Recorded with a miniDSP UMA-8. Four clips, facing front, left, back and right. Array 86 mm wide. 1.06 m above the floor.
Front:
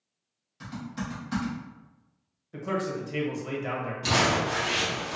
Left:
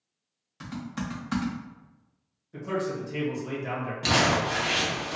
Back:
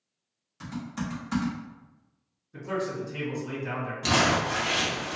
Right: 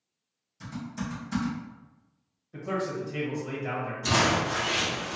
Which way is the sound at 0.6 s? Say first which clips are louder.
Left 1 dB, back 2 dB; 105° left.